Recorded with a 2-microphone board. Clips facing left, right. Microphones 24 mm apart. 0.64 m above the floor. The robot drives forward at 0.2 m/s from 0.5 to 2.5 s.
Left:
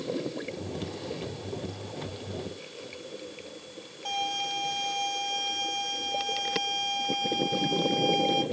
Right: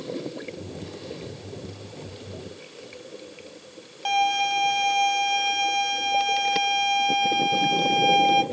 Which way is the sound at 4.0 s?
65° right (ahead or behind).